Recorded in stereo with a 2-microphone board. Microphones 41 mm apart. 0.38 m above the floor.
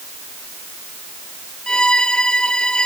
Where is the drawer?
No drawer in this recording.